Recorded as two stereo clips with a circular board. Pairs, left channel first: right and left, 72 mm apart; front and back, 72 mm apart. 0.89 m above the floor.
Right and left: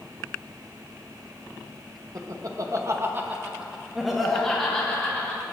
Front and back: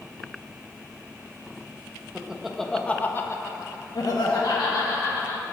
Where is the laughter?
105° left, 1.0 m; by 5.5 s 15° right, 2 m.